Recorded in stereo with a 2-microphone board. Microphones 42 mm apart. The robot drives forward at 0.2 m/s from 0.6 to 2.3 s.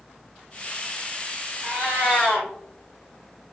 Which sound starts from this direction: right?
A cat meowing, at 1.6 s.